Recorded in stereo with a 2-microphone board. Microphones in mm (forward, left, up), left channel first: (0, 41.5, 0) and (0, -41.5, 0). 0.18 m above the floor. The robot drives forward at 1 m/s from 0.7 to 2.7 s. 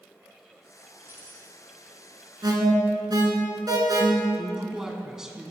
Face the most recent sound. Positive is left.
turn(degrees=-5)  # may be behind; listen again after turning